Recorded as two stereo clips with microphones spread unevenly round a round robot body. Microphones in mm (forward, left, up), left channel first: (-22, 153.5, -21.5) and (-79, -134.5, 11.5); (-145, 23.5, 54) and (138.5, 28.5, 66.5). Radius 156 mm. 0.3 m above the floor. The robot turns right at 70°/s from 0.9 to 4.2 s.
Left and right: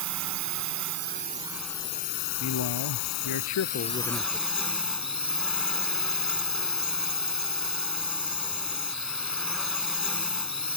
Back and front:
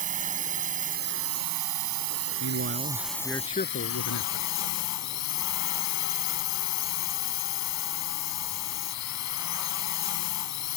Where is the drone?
60° right; by 10.8 s 170° left.